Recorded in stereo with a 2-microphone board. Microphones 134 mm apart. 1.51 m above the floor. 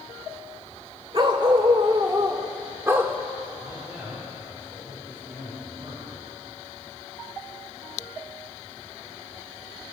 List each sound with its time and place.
1.1 s a dog barking: 40° right (ahead or behind), 1.6 m; by 3.2 s 15° right (ahead or behind), 1.1 m
3.6 s a man speaking: 20° right (ahead or behind), 5 m